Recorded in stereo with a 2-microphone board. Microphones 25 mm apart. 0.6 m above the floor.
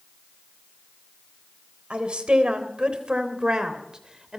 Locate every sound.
1.9 s a woman speaking: 50° right (ahead or behind), 3.5 m; by 4.4 s 30° right (ahead or behind), 3 m